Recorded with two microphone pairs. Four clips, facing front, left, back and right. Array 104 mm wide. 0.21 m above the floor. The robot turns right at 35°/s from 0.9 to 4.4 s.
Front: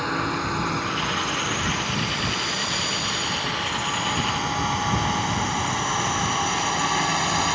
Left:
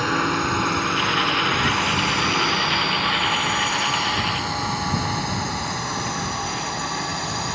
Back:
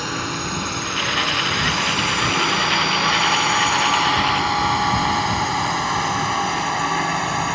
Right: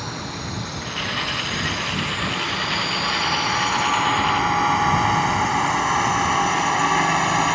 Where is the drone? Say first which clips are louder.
Left 9 dB, front 1 dB; 85° left; by 7.6 s 100° right.